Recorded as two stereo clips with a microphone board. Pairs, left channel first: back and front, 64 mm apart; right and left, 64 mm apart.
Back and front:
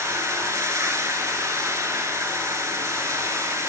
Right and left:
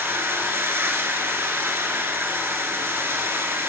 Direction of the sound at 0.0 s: 40° left.